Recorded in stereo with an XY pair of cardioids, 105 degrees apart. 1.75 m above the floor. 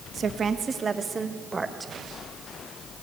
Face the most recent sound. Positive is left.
turn(degrees=-20)